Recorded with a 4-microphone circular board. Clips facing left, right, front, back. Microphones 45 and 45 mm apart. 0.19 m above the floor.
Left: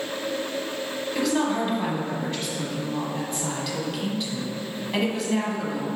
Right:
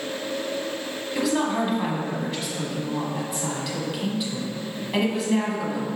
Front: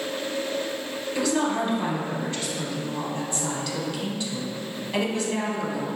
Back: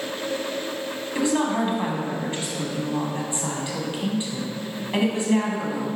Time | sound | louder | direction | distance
1.1 | a woman speaking | right 1 dB, back 2 dB | 170° right | 1.2 m